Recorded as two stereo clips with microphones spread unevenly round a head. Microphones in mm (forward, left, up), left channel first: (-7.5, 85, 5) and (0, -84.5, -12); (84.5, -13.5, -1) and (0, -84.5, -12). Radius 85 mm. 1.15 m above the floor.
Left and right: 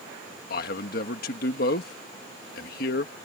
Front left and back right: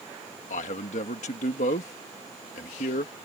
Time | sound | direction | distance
0.5 | a man speaking | 60° left | ?